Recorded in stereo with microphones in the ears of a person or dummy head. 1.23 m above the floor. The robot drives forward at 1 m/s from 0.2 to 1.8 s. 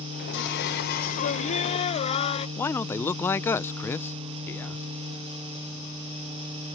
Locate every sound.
0.3 s singing: 65° left (ahead or behind); by 2.5 s 40° left (ahead or behind)
2.6 s a man speaking: 10° left (ahead or behind)